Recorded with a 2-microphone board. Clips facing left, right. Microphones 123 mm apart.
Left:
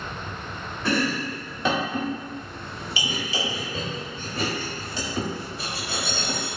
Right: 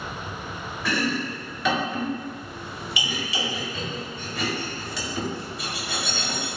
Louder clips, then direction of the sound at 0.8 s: Left 2 dB; 35° left (ahead or behind).